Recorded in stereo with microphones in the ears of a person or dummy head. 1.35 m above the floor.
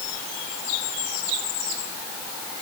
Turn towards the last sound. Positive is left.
No sound to turn to.